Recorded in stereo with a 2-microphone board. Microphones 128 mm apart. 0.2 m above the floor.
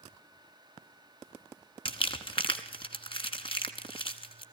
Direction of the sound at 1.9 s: 45° left (ahead or behind).